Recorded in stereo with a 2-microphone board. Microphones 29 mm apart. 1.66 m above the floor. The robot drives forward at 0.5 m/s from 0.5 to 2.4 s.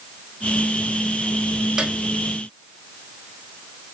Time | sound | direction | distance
1.8 | a piano | 30° right (ahead or behind) | 1.3 m